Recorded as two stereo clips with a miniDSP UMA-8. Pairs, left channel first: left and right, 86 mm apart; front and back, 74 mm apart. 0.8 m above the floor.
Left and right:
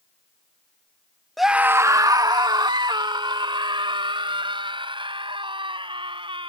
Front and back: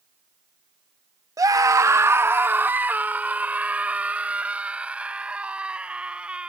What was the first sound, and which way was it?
A scream, straight behind.